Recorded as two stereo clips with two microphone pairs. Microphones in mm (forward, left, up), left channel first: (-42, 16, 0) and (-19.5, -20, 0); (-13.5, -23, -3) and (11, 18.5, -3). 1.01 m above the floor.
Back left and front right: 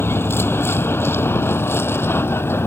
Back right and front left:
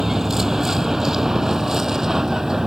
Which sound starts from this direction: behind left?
A vehicle, at 0.0 s.